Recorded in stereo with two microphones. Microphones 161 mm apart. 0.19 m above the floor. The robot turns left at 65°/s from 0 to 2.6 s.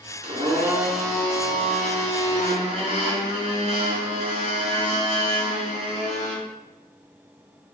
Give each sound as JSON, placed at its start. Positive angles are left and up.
{"t": 0.2, "sound": "a blender", "azimuth_deg": -135, "distance_m": 2.5}